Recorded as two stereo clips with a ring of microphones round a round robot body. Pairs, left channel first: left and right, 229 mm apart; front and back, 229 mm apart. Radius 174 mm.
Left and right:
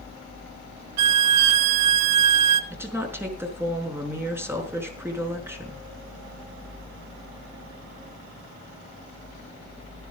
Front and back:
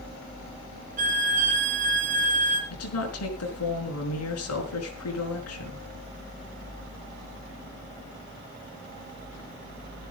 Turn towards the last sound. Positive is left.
turn(degrees=-10)